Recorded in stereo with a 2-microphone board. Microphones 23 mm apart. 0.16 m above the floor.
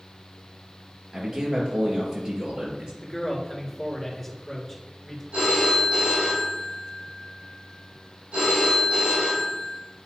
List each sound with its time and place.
1.1 s a man speaking: 40° right (ahead or behind), 2.5 m
3.0 s a man speaking: 5° right (ahead or behind), 2.5 m
5.3 s a phone ringing: 80° right, 3.5 m